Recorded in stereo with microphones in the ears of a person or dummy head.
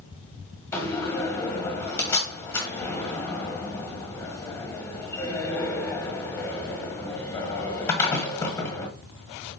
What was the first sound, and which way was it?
A door slam, 15° left (ahead or behind).